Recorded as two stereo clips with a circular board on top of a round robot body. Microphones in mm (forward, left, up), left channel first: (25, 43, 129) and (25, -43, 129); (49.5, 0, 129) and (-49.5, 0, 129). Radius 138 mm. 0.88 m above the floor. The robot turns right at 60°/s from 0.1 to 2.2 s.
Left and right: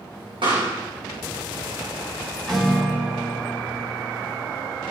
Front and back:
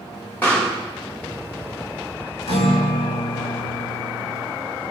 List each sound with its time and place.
0.4 s a pop: 75° right, 3.5 m; by 0.7 s 55° right, 3.5 m
2.5 s a guitar: 10° left, 1.7 m